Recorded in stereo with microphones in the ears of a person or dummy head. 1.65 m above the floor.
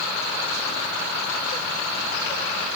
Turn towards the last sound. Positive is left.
No sound to turn to.